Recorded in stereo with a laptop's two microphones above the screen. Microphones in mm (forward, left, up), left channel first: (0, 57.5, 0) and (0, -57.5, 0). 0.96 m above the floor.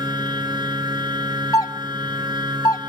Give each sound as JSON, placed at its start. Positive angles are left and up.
{"t": 0.0, "sound": "a machine running", "side_deg": -40, "distance_m": 2.5}
{"t": 1.5, "sound": "a doorbell", "side_deg": 30, "distance_m": 0.7}